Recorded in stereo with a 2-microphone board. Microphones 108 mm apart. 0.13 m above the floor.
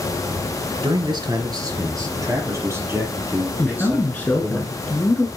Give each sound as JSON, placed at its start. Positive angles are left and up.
{"t": 0.8, "sound": "a man speaking", "side_deg": -45, "distance_m": 2.0}
{"t": 3.6, "sound": "a man speaking", "side_deg": 15, "distance_m": 1.5}